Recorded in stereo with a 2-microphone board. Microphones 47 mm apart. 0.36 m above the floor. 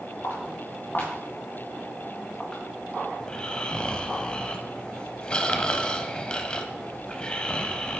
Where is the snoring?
20° left (ahead or behind), 0.6 m.